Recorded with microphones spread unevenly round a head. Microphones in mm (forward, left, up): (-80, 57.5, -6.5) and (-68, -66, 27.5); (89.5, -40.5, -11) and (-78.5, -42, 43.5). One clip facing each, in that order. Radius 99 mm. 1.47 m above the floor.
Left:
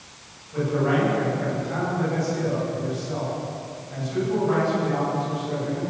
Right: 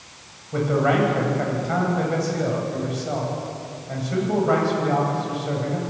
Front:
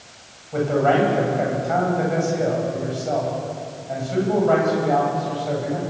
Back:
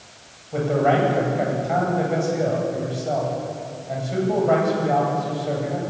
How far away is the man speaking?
About 10 m.